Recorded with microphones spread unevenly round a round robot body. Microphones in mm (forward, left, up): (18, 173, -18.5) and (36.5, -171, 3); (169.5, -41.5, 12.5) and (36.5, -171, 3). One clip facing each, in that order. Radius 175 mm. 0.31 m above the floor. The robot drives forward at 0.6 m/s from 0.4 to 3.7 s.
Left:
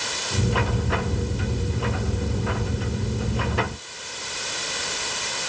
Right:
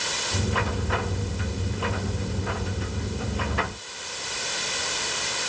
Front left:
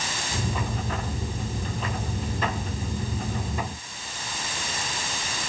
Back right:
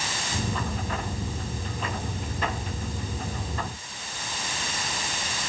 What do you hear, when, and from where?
Only background noise.